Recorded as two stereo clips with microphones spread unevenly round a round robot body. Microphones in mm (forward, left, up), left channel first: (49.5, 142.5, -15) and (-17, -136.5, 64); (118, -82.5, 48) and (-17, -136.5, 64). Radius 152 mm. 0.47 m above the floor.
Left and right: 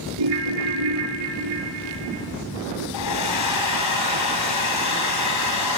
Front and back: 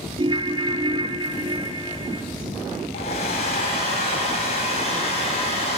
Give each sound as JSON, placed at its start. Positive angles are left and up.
{"t": 0.2, "sound": "a ringtone", "azimuth_deg": -105, "distance_m": 2.0}
{"t": 2.9, "sound": "a hair dryer", "azimuth_deg": 70, "distance_m": 3.5}